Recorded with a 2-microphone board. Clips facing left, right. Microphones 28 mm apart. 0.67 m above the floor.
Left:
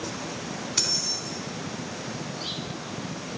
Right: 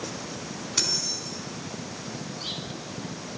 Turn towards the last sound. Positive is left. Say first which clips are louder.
# even
turn(degrees=0)  # may be behind; listen again after turning